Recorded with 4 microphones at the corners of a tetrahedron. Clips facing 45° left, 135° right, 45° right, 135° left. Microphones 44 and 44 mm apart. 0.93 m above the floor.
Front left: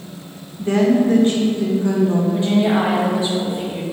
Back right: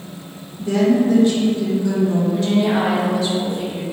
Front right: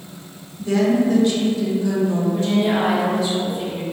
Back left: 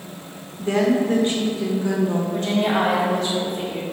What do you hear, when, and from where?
0.6 s a woman speaking: 85° left, 0.6 m
2.3 s a woman speaking: 105° left, 1.0 m